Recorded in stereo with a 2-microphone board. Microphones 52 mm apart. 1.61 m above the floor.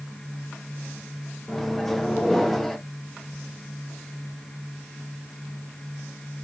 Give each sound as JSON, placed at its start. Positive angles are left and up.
{"t": 1.5, "sound": "a microwave", "side_deg": 5, "distance_m": 0.5}